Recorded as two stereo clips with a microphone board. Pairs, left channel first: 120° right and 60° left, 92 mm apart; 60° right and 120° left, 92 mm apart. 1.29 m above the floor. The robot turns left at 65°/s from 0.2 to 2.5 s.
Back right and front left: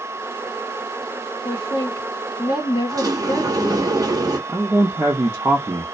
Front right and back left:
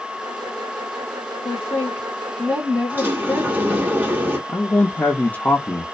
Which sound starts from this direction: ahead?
A man speaking, at 4.5 s.